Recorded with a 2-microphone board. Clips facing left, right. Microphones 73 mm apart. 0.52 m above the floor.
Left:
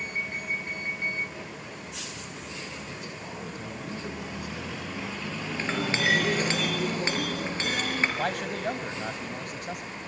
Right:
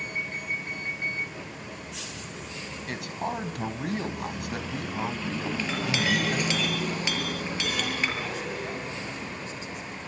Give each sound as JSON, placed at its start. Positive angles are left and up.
{"t": 2.9, "sound": "a man speaking", "side_deg": -70, "distance_m": 3.5}
{"t": 5.6, "sound": "a clink", "side_deg": 35, "distance_m": 6.5}
{"t": 8.2, "sound": "a man speaking", "side_deg": 55, "distance_m": 3.5}